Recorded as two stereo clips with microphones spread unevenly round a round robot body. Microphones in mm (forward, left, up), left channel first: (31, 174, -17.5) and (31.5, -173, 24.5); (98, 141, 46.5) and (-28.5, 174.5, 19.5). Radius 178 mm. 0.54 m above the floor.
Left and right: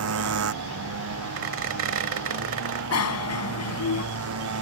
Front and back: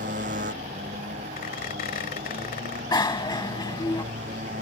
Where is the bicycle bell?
45° left.